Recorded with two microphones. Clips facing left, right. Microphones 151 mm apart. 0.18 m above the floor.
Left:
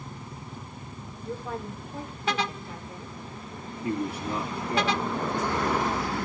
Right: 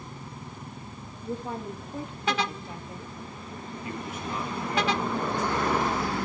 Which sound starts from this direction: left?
A man speaking, at 3.8 s.